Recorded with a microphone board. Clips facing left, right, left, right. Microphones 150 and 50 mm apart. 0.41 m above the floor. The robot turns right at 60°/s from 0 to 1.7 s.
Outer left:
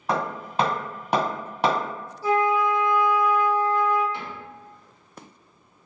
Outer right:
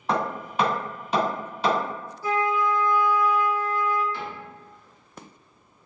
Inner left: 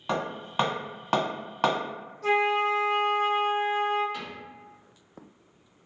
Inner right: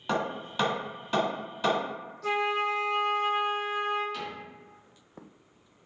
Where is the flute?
30° left (ahead or behind), 1.4 m.